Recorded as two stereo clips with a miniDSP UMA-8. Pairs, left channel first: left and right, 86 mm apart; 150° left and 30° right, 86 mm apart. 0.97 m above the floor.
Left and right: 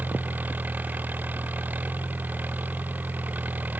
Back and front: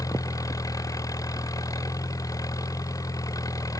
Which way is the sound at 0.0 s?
160° right.